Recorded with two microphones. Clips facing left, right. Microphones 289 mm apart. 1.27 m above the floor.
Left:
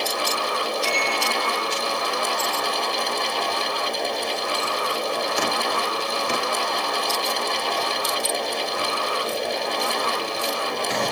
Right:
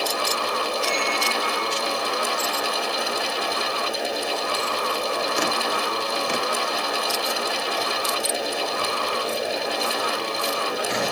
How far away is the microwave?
About 2 m.